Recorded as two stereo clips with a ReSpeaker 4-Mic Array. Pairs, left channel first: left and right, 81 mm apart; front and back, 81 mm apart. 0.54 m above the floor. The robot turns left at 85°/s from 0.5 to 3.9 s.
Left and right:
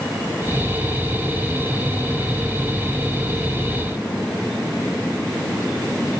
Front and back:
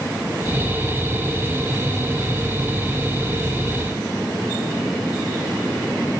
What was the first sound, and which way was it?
Only background noise.